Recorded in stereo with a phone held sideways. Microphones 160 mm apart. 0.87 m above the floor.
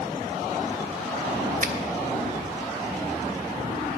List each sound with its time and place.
1.6 s a finger snap: 55° right (ahead or behind), 1.0 m